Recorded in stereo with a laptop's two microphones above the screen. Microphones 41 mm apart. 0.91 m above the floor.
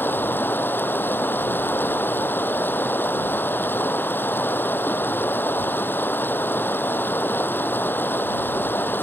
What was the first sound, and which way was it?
Running water, 55° left (ahead or behind).